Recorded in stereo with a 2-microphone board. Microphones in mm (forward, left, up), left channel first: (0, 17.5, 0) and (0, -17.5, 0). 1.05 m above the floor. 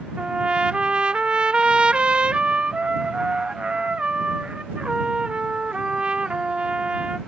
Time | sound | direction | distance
0.2 | a trumpet | 35° right (ahead or behind) | ?